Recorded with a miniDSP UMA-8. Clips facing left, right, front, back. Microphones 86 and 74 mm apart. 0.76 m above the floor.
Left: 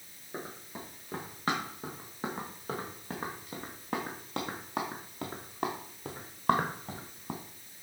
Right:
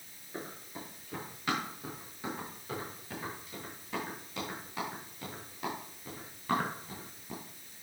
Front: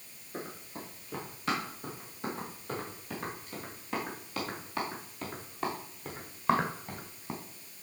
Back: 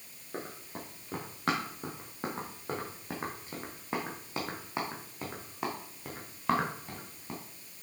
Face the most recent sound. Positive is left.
turn(degrees=75)